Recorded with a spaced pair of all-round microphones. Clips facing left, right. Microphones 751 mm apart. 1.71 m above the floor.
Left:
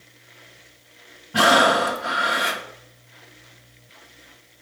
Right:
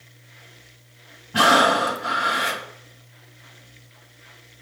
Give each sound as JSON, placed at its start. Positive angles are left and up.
{"t": 1.3, "sound": "breathing", "side_deg": 5, "distance_m": 0.5}